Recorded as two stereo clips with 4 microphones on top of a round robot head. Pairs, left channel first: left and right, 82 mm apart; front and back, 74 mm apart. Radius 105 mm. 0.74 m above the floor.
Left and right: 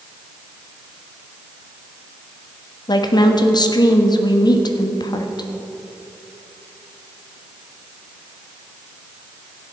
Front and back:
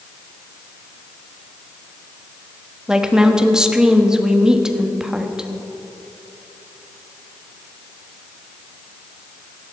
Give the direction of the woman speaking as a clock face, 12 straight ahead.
9 o'clock.